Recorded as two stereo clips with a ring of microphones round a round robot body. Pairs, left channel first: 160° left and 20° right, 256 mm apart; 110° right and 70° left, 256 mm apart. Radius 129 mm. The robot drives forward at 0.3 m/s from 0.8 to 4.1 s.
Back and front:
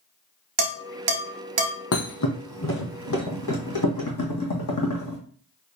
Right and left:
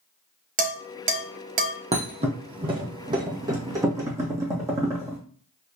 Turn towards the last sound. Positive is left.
turn(degrees=145)